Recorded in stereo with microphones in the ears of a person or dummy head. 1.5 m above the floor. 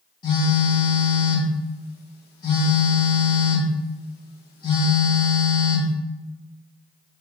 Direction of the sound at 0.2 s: 25° left (ahead or behind).